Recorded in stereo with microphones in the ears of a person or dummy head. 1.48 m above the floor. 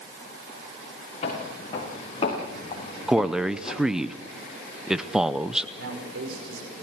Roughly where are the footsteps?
Left.